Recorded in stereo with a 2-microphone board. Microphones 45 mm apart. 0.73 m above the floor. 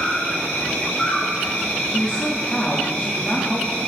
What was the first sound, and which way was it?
An insect, 30° left (ahead or behind).